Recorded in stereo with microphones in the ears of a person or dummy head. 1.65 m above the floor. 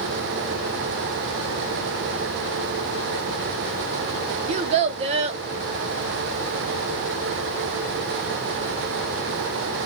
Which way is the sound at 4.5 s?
35° right (ahead or behind).